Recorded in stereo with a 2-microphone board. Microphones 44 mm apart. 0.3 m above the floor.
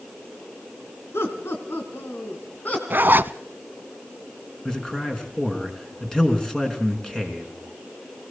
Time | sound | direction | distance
1.1 | laughter | 75° left (ahead or behind) | 3 m
2.9 | a zipper | 50° right (ahead or behind) | 0.6 m
4.7 | a man speaking | 15° left (ahead or behind) | 3.5 m